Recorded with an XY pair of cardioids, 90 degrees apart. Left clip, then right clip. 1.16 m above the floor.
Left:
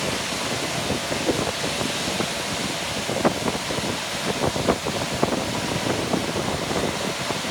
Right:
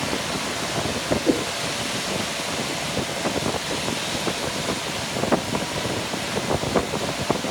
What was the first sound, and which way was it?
A whoosh, 35° right.